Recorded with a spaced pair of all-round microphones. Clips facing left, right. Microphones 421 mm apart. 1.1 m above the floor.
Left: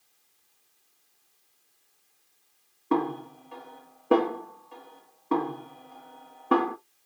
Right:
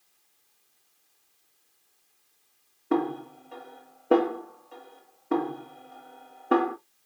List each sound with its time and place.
2.9 s a snare drum: 15° left (ahead or behind), 1.2 m